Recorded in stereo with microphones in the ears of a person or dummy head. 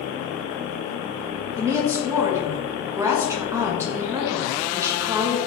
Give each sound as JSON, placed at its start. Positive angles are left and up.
{"t": 1.6, "sound": "a woman speaking", "side_deg": -15, "distance_m": 0.7}